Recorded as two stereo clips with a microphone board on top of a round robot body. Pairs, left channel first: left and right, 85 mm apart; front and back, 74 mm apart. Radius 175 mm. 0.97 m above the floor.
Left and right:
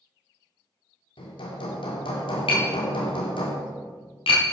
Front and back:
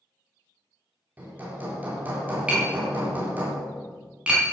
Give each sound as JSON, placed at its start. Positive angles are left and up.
{"t": 1.2, "sound": "hammering", "azimuth_deg": 110, "distance_m": 2.5}
{"t": 2.5, "sound": "tapping", "azimuth_deg": 105, "distance_m": 3.5}